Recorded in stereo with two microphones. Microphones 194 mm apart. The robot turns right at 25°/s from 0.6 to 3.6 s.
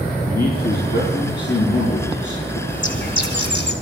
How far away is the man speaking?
About 6.5 m.